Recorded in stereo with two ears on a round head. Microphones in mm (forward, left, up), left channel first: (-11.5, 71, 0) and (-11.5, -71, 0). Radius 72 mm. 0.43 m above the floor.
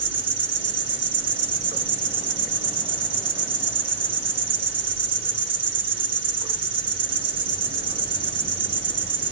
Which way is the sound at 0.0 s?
30° right (ahead or behind).